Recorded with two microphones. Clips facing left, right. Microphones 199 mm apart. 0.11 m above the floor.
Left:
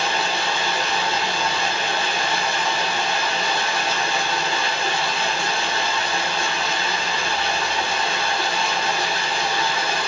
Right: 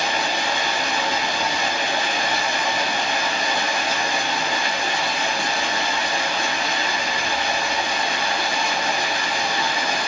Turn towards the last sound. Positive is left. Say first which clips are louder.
# even
turn(degrees=-15)  # may be behind; listen again after turning